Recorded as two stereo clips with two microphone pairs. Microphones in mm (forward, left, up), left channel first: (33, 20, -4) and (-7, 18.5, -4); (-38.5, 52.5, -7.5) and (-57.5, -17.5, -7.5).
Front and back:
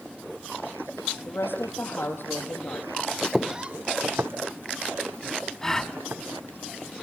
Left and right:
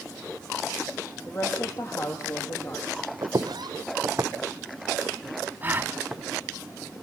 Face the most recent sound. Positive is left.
turn(degrees=-60)